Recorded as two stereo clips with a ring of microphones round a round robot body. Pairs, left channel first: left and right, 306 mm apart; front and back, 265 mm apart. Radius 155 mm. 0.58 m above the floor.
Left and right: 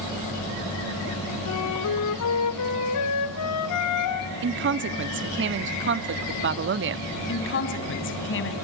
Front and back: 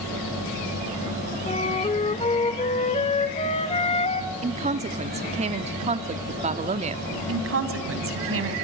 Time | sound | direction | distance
1.5 | a flute | 65° left | 2 m
4.4 | a woman speaking | 125° right | 0.9 m
7.3 | a woman speaking | 140° left | 4 m